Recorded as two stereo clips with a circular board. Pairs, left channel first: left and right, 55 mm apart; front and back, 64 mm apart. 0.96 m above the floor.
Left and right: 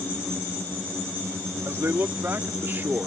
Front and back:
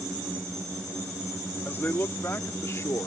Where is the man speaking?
55° right; by 3.1 s 40° right.